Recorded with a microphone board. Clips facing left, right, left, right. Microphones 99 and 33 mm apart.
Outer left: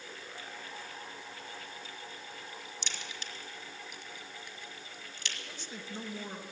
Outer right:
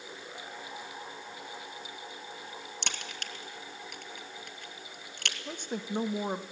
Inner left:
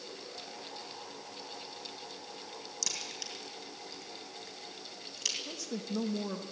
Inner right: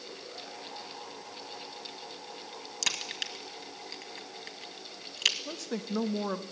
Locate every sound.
2.8 s a crack: 65° right (ahead or behind), 2.0 m
5.5 s a woman speaking: 55° right (ahead or behind), 1.2 m